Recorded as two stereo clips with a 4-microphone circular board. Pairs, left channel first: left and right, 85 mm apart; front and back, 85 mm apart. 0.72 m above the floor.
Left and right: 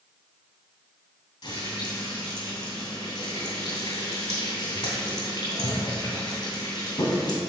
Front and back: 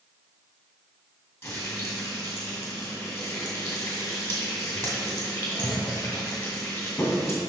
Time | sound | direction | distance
1.4 | frying | 65° left | 2.5 m